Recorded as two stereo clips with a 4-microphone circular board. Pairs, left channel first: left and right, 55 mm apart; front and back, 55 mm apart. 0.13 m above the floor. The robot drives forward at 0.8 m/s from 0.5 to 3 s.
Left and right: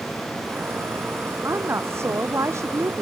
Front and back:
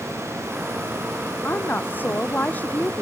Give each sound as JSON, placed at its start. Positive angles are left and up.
{"t": 1.4, "sound": "a woman speaking", "azimuth_deg": -55}